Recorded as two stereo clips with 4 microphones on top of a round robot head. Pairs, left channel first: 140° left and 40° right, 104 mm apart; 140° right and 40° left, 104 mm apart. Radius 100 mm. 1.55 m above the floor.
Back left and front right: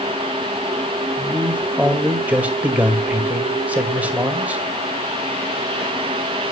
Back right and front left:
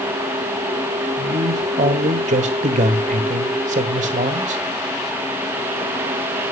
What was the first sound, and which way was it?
A man speaking, 35° left.